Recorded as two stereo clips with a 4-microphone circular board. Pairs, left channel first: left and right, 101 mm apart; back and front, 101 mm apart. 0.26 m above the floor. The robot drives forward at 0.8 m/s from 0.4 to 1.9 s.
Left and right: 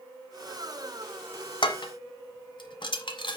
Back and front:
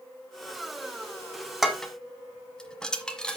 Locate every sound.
1.6 s dishes clattering: 85° left, 1.3 m; by 3.4 s 100° left, 1.3 m